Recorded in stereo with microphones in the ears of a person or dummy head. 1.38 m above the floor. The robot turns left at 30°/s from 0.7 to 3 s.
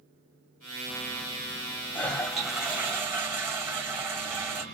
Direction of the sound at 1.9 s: 10° left.